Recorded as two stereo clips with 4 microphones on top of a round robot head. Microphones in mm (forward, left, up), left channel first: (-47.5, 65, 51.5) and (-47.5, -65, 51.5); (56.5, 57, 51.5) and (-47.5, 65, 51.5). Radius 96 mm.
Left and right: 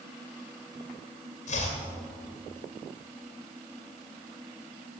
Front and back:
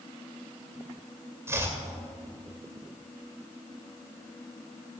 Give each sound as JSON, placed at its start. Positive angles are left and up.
{"t": 1.5, "sound": "chopping", "azimuth_deg": 110, "distance_m": 2.5}